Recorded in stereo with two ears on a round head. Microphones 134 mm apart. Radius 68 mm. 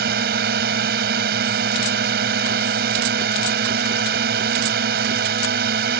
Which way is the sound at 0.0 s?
75° right (ahead or behind).